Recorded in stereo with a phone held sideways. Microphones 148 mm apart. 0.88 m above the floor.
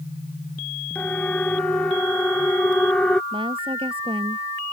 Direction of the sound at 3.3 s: 35° right (ahead or behind).